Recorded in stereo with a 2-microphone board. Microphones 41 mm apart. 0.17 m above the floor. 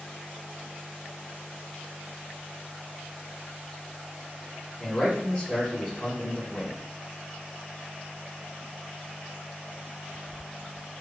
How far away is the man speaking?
About 1.3 m.